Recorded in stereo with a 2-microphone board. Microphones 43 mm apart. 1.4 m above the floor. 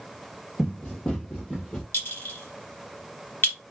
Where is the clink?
65° left (ahead or behind), 1.2 m.